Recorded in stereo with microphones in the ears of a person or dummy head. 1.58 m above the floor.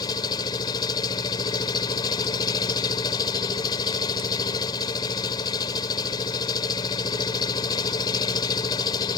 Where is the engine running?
25° left (ahead or behind).